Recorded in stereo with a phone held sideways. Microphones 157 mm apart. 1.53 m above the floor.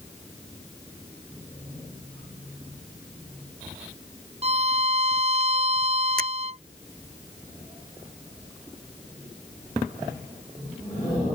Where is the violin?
40° right (ahead or behind).